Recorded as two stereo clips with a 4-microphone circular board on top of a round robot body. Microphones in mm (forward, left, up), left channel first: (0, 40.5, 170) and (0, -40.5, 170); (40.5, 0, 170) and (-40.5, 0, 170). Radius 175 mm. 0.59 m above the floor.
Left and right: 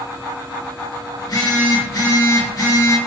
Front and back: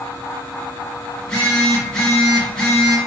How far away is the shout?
No shout in this recording.